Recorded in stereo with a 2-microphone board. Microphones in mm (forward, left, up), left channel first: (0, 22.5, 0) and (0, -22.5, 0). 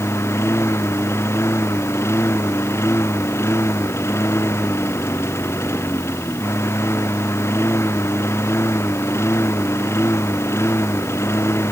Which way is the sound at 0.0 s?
80° left.